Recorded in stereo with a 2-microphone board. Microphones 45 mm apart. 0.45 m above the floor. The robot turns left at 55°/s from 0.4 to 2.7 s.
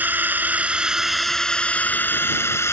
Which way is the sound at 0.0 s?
140° right.